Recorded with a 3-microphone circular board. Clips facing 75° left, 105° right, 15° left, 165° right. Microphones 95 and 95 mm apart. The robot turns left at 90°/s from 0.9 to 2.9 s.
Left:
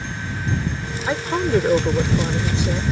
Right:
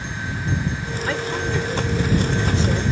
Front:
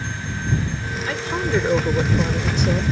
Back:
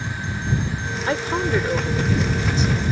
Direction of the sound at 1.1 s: 145° left.